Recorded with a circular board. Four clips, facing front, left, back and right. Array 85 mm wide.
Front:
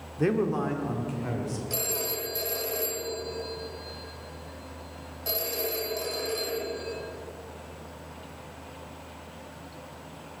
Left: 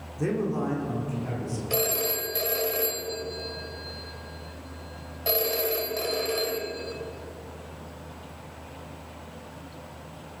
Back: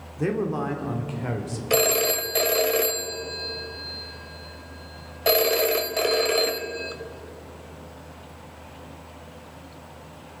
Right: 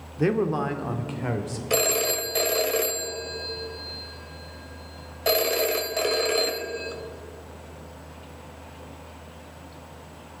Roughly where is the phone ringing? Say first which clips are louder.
Right 5 dB, back 11 dB; behind right.